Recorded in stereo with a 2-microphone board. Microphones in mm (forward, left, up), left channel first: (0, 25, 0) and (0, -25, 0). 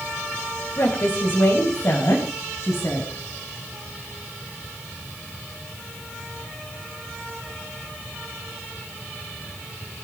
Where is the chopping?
No chopping in this recording.